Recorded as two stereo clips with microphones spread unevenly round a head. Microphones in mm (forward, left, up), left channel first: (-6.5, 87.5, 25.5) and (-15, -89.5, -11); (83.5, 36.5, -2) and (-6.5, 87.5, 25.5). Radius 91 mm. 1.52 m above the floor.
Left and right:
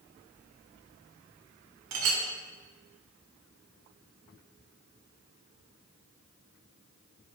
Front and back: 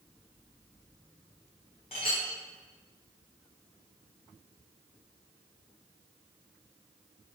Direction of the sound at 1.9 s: 90° right.